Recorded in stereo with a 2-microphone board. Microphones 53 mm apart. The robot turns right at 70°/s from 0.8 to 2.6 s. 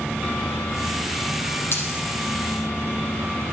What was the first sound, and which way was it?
A dropped coin, 50° left (ahead or behind).